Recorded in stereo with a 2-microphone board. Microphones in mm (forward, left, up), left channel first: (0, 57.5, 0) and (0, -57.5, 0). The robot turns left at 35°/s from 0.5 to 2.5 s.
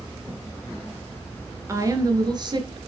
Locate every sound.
1.7 s a woman speaking: 25° right (ahead or behind), 1.6 m; by 2.8 s 40° right (ahead or behind), 1.6 m